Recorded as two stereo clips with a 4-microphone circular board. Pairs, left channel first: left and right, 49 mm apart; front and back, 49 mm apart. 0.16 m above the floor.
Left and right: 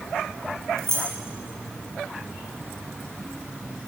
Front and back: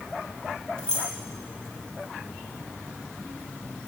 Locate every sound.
0.8 s keys jangling: 75° right, 3 m